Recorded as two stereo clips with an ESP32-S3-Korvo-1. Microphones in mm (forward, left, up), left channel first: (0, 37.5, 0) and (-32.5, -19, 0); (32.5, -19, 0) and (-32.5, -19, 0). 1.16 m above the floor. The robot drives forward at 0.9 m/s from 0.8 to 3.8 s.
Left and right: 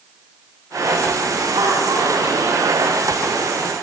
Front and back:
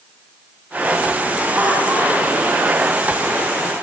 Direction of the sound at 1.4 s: 115° right.